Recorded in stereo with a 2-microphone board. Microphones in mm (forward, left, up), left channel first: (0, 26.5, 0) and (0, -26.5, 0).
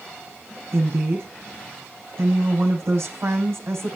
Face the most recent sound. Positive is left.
turn(degrees=-60)  # may be behind; listen again after turning